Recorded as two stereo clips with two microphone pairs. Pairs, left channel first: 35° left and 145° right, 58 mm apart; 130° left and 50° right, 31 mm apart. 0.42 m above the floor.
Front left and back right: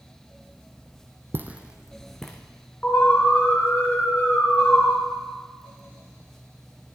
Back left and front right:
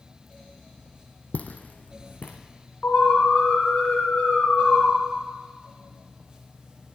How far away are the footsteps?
About 1.0 m.